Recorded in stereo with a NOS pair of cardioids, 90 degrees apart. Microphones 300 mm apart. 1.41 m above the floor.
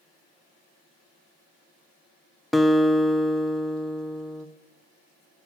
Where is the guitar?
Straight ahead, 0.5 m.